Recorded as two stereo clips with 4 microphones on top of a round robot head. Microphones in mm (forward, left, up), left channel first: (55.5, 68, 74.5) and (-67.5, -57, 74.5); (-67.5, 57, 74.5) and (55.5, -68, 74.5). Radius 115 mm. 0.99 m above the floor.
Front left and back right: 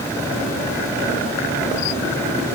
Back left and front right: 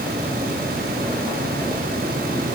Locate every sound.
Only background noise.